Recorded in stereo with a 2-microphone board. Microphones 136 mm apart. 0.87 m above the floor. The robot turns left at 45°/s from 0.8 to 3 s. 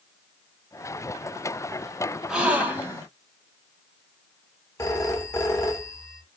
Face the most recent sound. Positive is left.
turn(degrees=20)  # may be behind; listen again after turning